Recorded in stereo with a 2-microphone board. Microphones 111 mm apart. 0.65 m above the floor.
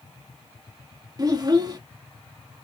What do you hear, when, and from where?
1.2 s a child speaking: 35° right (ahead or behind), 0.8 m